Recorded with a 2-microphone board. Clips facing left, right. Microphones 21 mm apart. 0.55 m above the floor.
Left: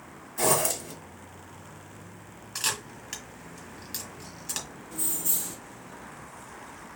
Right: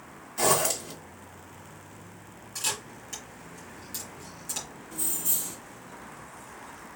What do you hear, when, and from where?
0.4 s a zipper: 20° right (ahead or behind), 1.9 m
2.5 s a camera shutter: 45° left (ahead or behind), 2.5 m
4.9 s keys jangling: 5° right (ahead or behind), 2 m